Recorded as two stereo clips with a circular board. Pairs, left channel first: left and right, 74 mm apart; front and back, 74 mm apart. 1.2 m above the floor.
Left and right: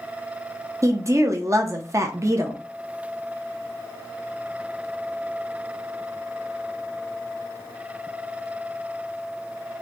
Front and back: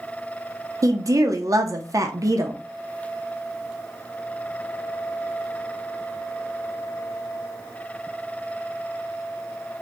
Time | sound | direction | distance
0.8 | a woman speaking | 140° right | 0.6 m